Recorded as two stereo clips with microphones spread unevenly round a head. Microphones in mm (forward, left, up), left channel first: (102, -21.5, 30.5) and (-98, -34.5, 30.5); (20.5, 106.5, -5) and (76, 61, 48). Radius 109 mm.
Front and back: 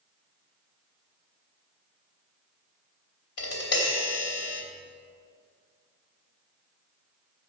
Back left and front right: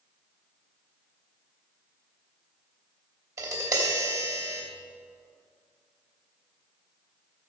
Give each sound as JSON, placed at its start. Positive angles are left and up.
{"t": 3.4, "sound": "tapping", "azimuth_deg": -10, "distance_m": 3.0}